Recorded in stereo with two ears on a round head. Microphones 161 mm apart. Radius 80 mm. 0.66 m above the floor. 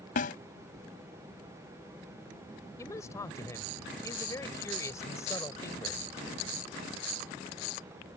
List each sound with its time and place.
0.2 s a snare drum: 50° left (ahead or behind)
2.8 s a man speaking: 15° left (ahead or behind)